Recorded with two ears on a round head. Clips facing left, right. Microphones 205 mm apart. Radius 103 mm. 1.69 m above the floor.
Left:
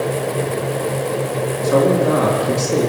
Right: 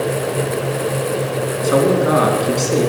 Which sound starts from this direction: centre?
A man speaking, at 1.6 s.